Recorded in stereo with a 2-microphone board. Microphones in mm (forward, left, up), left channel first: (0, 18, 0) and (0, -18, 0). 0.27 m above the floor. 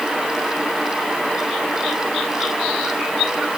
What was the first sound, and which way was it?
Only background noise.